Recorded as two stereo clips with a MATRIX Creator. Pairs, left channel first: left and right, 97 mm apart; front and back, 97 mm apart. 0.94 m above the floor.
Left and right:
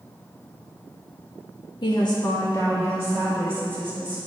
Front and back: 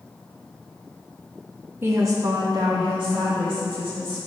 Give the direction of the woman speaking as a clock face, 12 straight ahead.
8 o'clock.